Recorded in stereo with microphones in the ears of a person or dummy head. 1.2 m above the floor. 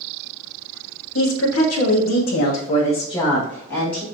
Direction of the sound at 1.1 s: 75° left (ahead or behind).